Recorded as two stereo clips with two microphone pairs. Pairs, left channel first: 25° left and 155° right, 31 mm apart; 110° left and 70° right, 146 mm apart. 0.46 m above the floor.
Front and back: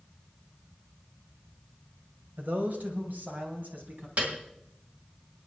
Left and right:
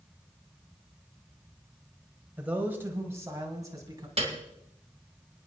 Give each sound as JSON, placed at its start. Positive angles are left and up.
{"t": 2.4, "sound": "a man speaking", "azimuth_deg": -150, "distance_m": 2.0}
{"t": 4.2, "sound": "a piano", "azimuth_deg": -115, "distance_m": 2.0}